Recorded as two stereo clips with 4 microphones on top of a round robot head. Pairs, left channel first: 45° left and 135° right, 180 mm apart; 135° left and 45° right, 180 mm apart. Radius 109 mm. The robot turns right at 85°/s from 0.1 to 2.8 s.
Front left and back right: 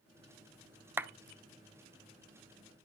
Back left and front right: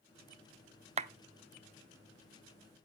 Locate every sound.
1.0 s a clap: 65° right, 0.7 m; by 1.1 s 50° right, 0.7 m